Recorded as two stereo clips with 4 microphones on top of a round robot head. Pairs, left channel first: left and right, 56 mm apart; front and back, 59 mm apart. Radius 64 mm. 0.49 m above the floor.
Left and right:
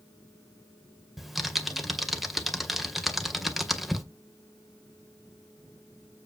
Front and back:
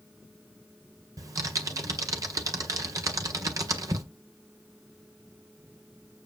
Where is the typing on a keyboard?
Straight behind, 2 m.